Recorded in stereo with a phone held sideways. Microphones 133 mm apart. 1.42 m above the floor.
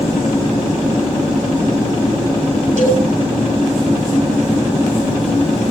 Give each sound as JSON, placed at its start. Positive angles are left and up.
{"t": 2.8, "sound": "a cowbell", "side_deg": -80, "distance_m": 8.0}